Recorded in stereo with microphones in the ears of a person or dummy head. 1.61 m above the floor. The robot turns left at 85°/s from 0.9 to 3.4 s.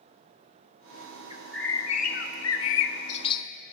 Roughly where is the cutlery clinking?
No cutlery clinking in this recording.